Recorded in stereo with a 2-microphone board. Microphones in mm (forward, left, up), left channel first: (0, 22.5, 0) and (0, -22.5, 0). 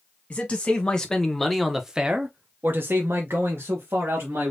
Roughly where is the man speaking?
Left.